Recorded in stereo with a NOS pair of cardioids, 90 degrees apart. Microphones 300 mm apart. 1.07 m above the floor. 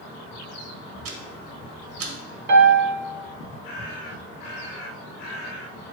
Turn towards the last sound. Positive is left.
turn(degrees=-40)